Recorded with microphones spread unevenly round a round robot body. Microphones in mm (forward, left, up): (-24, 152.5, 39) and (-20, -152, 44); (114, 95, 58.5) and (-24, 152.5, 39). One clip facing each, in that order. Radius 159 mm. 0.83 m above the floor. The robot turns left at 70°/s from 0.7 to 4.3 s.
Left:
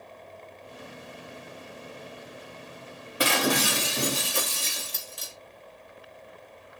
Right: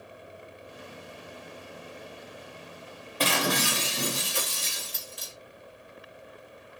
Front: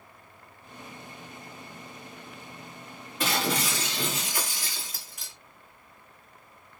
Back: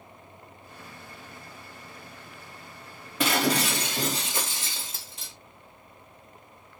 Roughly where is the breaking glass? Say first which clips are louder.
Left 3 dB, back 4 dB; behind.